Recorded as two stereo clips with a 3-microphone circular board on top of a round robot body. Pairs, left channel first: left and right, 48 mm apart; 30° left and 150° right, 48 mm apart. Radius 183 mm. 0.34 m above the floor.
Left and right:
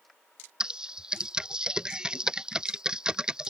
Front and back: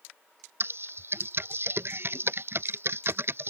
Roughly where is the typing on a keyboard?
Behind.